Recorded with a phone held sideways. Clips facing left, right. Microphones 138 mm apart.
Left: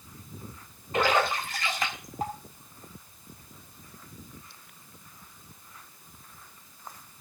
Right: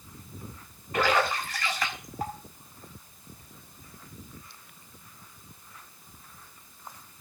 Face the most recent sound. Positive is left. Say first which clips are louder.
# even
turn(degrees=25)  # may be behind; listen again after turning